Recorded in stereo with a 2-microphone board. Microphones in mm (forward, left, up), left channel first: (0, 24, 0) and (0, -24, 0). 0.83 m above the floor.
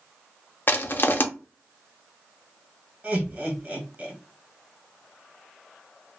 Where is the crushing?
50° left (ahead or behind), 0.5 m.